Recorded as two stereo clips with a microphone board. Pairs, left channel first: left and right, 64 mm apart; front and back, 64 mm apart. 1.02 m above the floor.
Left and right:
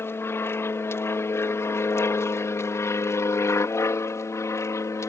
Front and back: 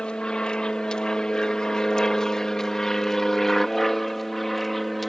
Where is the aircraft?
70° left; by 5.1 s 85° left.